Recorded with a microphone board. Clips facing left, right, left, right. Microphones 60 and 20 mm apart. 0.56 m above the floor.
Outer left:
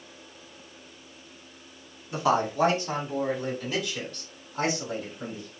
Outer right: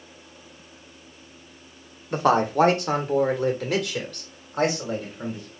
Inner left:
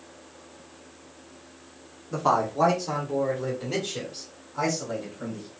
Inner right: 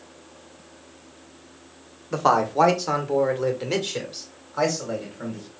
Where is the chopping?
No chopping in this recording.